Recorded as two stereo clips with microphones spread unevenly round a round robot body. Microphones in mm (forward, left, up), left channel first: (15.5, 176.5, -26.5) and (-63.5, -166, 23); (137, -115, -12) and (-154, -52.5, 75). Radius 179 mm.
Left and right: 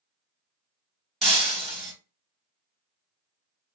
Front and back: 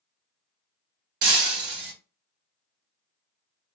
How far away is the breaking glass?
About 1.2 m.